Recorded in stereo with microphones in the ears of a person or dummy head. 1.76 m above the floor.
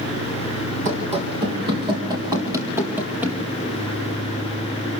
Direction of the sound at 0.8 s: 40° right (ahead or behind).